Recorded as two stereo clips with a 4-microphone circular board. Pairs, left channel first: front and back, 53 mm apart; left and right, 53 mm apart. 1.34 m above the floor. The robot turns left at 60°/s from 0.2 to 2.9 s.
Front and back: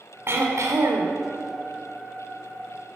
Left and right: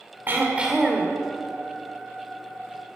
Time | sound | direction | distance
0.3 | throat clearing | 140° right | 2.5 m